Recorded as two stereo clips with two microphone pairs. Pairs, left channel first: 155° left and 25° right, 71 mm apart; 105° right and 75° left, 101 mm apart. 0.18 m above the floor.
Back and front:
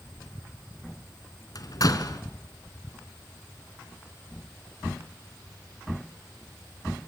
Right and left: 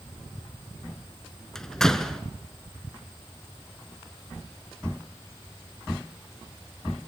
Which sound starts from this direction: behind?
A door slam, at 1.6 s.